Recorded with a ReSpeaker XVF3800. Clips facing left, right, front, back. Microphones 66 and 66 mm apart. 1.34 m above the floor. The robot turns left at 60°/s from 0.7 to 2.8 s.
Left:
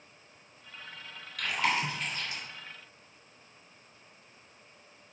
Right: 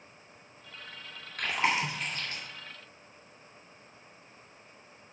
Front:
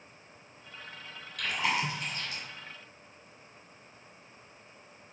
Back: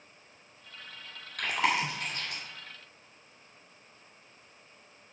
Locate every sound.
1.4 s chewing: 140° right, 2 m; by 2.4 s 160° left, 2 m